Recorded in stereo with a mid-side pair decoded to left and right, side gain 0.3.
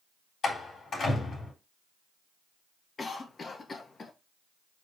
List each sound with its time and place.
0.4 s a door slam: 65° left, 4 m
3.0 s a cough: 50° left, 1.7 m